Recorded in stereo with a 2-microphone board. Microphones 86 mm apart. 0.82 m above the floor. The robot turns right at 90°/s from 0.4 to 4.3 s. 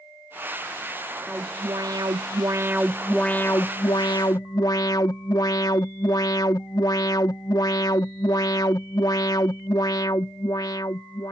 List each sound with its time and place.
1.3 s an alarm: 160° right; by 11.3 s 110° left